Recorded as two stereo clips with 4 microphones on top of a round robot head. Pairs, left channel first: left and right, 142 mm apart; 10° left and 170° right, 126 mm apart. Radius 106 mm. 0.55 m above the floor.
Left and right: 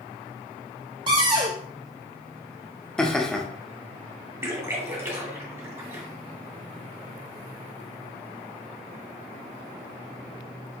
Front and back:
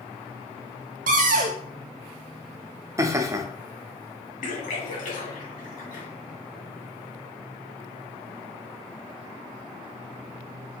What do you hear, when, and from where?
1.1 s a cupboard door: 155° right, 0.5 m
3.0 s laughter: 170° left, 0.7 m
4.4 s a splash: 20° right, 1.7 m